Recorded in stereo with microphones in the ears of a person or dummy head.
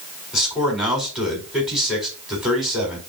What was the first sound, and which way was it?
A man speaking, 5° right (ahead or behind).